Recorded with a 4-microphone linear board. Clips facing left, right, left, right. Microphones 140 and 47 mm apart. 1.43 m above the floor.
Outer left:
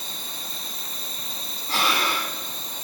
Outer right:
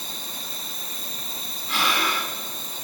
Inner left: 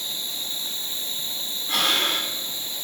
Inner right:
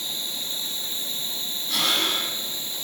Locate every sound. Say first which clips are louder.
0.0 s an insect: outer right 1 dB, even; 5° right (ahead or behind), 4 m
1.7 s breathing: outer left 1 dB, inner left 2 dB; 40° left (ahead or behind), 2.5 m